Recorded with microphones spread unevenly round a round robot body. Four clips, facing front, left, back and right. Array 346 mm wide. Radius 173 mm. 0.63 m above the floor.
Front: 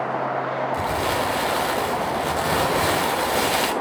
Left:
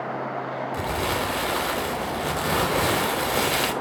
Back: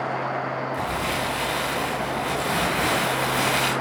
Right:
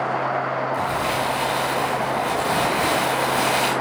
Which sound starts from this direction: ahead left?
Crumpling, at 0.7 s.